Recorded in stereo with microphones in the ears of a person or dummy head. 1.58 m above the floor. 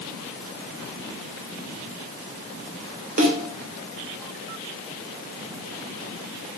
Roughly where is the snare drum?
Right.